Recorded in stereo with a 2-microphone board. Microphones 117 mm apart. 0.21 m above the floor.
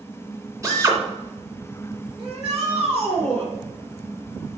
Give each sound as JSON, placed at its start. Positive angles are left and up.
{"t": 0.6, "sound": "a drill", "side_deg": -25, "distance_m": 2.5}
{"t": 2.2, "sound": "a shout", "side_deg": -45, "distance_m": 3.0}